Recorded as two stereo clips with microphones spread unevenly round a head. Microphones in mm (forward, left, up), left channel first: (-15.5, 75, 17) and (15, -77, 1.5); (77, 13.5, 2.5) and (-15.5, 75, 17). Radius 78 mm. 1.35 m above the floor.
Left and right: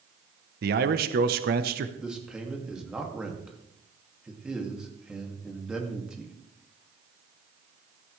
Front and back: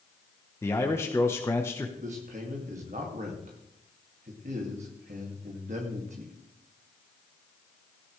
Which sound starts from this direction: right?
A man speaking, at 0.6 s.